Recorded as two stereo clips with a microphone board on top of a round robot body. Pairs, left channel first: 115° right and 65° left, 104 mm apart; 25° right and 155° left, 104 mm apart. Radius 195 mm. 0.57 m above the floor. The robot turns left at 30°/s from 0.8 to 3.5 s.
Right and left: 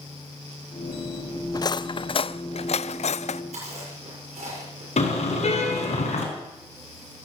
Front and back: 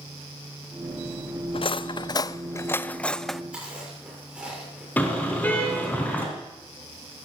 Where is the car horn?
100° right, 3.5 m.